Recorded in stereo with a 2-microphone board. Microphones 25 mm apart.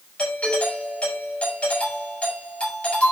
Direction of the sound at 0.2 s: 60° left (ahead or behind).